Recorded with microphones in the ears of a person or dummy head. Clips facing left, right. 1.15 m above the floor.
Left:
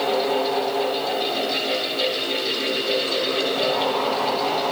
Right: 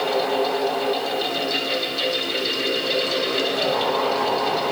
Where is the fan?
65° right (ahead or behind), 10 m.